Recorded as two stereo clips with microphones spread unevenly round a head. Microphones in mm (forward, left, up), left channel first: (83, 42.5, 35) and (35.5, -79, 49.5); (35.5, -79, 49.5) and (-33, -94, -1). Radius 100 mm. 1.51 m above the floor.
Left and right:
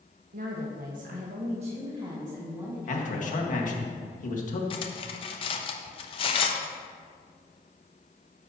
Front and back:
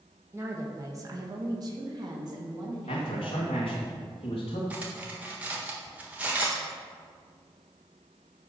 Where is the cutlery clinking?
60° left, 0.7 m.